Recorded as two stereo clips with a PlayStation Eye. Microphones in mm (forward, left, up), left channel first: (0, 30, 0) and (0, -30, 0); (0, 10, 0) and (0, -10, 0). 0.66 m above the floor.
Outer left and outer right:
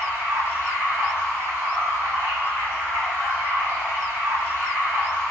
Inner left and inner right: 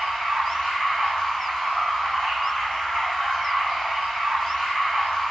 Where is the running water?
45° left (ahead or behind), 1.3 m.